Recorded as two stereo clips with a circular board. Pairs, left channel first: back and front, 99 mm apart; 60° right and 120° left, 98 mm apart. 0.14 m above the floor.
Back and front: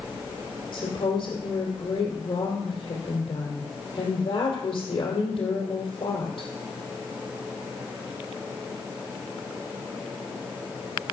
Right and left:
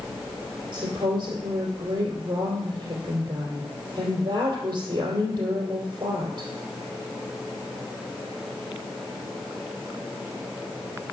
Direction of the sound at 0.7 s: 160° left.